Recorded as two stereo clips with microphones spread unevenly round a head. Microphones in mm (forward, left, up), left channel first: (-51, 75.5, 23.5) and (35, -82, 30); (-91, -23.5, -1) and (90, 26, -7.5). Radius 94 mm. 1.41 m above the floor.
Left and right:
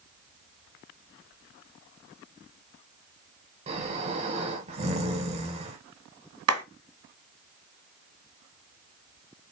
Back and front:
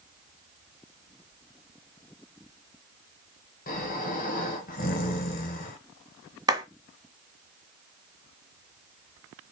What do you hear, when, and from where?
3.7 s snoring: 120° right, 3 m
6.5 s a clap: 60° right, 1.8 m